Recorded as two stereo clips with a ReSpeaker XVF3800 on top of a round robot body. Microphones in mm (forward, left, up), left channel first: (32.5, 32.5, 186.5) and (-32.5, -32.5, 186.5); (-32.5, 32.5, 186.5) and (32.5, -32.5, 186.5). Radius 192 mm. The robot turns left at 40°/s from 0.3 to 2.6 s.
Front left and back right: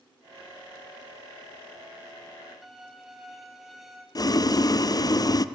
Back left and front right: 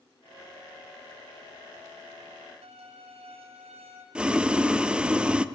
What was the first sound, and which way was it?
A violin, 45° right.